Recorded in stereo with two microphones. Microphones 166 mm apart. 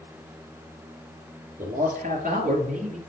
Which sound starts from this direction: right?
A man speaking, at 1.6 s.